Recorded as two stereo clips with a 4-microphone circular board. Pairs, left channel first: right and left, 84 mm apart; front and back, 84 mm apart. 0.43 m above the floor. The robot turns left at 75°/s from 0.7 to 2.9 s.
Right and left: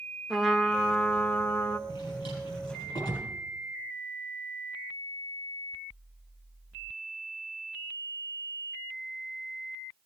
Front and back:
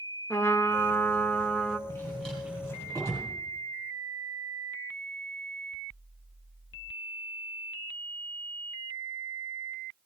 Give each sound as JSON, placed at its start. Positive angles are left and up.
{"t": 0.3, "sound": "a trumpet", "azimuth_deg": 10, "distance_m": 0.7}
{"t": 1.9, "sound": "a drawer", "azimuth_deg": -50, "distance_m": 7.0}